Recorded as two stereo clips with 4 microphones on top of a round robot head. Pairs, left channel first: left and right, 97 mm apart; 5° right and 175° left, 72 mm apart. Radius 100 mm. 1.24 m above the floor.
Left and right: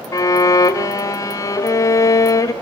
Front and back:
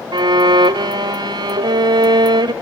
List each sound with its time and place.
0.1 s a violin: 145° left, 0.6 m